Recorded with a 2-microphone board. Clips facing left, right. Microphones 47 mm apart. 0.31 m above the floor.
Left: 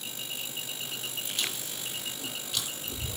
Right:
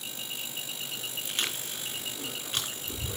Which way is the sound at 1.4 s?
50° right (ahead or behind).